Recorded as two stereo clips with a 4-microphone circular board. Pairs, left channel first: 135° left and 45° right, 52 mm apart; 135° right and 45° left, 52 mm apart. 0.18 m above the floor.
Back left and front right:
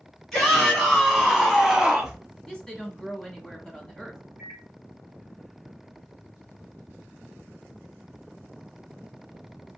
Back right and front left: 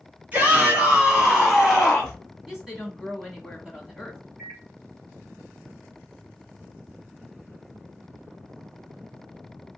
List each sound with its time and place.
0.3 s a shout: 60° left, 1.5 m; by 2.1 s 80° right, 1.4 m
2.5 s a woman speaking: 95° left, 1.0 m
4.4 s a microwave: 20° right, 1.3 m